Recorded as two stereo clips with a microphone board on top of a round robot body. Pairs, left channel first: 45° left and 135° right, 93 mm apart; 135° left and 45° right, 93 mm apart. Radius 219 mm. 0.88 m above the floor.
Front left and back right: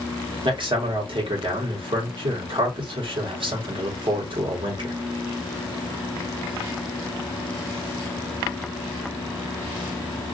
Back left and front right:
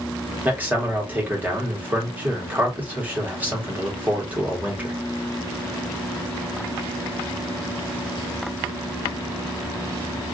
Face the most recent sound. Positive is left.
turn(degrees=-115)